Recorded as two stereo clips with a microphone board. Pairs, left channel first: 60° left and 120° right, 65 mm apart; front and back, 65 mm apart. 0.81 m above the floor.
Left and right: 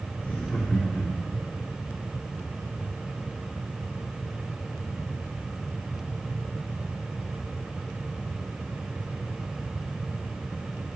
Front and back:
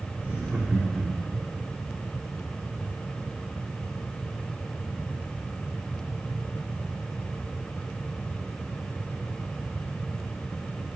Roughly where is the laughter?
Behind left.